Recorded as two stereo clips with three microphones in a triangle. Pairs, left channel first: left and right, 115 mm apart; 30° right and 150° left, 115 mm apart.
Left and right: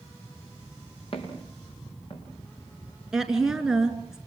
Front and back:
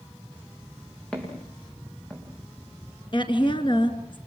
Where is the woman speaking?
5° right, 2.5 m.